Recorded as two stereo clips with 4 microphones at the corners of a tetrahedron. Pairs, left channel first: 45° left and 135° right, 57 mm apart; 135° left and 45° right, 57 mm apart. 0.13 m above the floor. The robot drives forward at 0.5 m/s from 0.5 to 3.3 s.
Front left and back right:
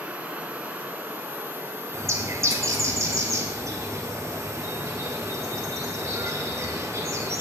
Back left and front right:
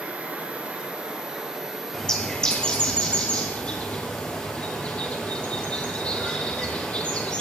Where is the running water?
90° right, 1.7 m; by 7.4 s 145° right, 2 m.